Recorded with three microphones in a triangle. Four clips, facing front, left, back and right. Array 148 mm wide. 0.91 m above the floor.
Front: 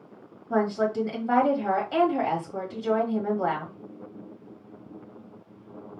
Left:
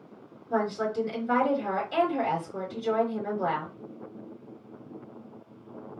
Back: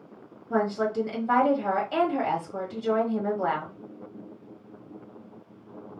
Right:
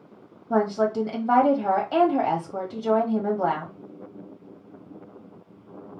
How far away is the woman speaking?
About 1.5 m.